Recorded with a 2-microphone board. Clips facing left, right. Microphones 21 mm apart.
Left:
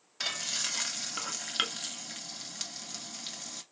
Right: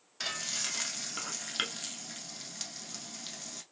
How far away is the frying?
About 0.8 m.